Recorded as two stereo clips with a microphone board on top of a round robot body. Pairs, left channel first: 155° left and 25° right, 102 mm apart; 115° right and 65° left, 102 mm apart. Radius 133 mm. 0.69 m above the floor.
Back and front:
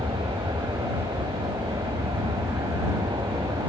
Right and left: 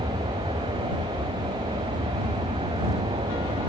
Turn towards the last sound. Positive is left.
turn(degrees=40)